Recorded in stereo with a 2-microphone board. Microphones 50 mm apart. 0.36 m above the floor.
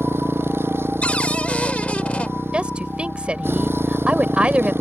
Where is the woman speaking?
20° right (ahead or behind).